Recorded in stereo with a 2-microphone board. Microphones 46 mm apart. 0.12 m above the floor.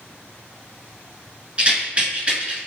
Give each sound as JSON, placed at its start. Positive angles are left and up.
{"t": 1.6, "sound": "a rattle", "side_deg": -25, "distance_m": 1.4}